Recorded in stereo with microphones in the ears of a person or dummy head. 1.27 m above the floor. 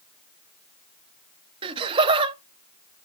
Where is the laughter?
25° right (ahead or behind), 0.6 m.